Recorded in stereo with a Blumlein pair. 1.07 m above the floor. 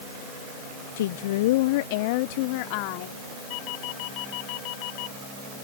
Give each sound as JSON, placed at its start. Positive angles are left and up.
{"t": 1.0, "sound": "a woman speaking", "azimuth_deg": 60}
{"t": 3.5, "sound": "a doorbell", "azimuth_deg": 45}